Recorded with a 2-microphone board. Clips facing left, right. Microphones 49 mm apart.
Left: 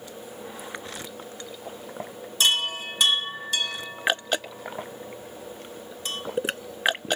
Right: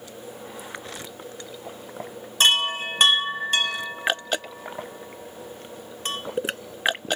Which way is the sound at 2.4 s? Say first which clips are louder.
Right 4 dB; 45° right (ahead or behind).